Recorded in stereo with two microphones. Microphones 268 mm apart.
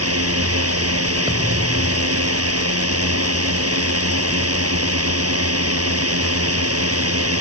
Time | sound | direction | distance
0.0 | a drone | 60° right (ahead or behind) | ?
1.3 | a thud | 15° right (ahead or behind) | ?